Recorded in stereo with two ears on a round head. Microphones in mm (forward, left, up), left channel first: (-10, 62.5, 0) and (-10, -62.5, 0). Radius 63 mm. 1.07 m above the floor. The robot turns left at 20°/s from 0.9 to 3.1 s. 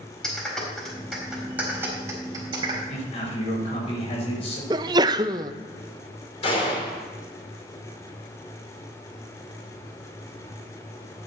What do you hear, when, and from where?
0.2 s a clap: 5° left (ahead or behind), 4 m; by 2.8 s 35° right (ahead or behind), 4 m
2.9 s a man speaking: 45° left (ahead or behind), 5 m; by 4.6 s 40° left (ahead or behind), 5 m
4.7 s a sneeze: 30° right (ahead or behind), 0.6 m
6.4 s a gunshot: 45° left (ahead or behind), 3 m